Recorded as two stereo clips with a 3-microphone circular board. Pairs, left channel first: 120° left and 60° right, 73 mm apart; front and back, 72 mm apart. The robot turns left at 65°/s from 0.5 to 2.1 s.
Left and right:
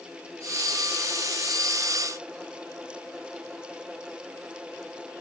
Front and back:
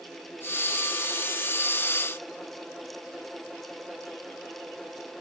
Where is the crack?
I don't hear a crack.